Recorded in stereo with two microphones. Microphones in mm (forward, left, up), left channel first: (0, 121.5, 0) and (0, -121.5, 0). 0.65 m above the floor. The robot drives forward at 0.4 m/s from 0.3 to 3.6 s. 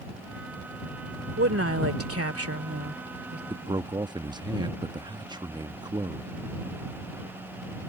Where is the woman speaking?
65° right (ahead or behind); by 3.4 s 70° right (ahead or behind).